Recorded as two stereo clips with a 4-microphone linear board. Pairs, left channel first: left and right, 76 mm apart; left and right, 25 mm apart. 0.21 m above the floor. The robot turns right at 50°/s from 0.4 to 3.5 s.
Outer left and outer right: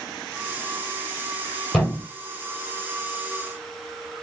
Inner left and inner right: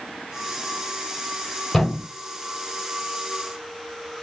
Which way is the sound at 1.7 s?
5° left (ahead or behind).